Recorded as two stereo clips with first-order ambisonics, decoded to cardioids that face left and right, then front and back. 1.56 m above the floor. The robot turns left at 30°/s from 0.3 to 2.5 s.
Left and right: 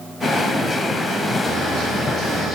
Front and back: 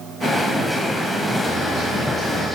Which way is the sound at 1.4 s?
50° right.